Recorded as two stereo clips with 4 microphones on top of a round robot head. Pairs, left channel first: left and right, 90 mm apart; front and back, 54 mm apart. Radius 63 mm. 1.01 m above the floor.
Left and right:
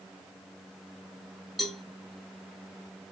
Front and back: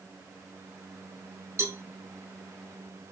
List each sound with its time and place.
1.6 s a cowbell: straight behind, 1.3 m